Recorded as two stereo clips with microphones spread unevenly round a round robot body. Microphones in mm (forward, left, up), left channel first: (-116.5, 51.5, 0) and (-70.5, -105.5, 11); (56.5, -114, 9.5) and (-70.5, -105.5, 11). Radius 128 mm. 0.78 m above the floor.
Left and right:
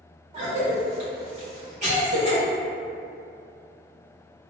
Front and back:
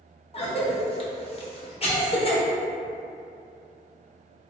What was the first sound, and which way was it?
A cough, 25° right.